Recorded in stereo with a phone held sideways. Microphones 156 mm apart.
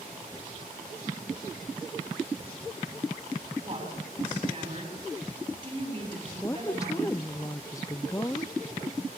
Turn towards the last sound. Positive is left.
turn(degrees=20)  # may be behind; listen again after turning